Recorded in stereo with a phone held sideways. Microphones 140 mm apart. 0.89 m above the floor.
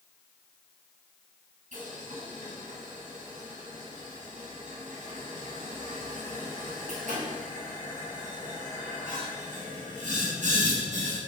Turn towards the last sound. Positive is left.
turn(degrees=-65)  # may be behind; listen again after turning